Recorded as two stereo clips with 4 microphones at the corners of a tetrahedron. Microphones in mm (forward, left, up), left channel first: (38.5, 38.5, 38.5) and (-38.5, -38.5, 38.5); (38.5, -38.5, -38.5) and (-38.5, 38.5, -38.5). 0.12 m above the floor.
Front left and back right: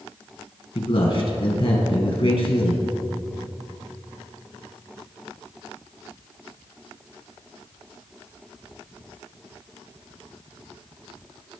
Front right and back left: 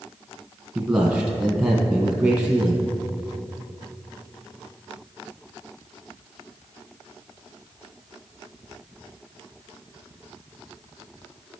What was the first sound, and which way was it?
A man speaking, 55° left.